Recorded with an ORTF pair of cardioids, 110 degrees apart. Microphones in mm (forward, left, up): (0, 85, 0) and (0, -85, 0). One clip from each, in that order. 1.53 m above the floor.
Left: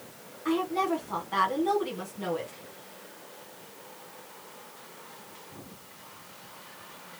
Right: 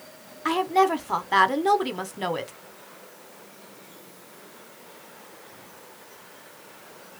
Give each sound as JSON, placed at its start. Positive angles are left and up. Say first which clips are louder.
{"t": 0.5, "sound": "a woman speaking", "louder": "right 7 dB", "azimuth_deg": -60, "distance_m": 1.3}